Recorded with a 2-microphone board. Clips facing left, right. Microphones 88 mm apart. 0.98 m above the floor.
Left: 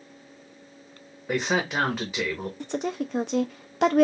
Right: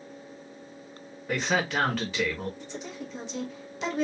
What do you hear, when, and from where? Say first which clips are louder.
1.3 s a man speaking: left 2 dB; 15° left (ahead or behind), 1.1 m
2.6 s a woman speaking: left 9 dB; 60° left (ahead or behind), 0.6 m